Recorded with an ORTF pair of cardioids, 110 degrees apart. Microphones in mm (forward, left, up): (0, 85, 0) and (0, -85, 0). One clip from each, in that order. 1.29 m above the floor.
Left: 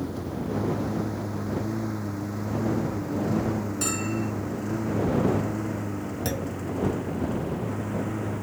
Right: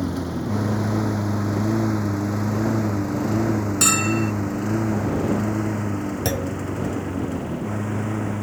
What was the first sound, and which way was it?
A lawn mower, 60° right.